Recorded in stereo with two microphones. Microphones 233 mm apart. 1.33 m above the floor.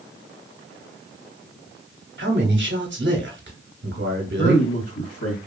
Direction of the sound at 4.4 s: 85° left.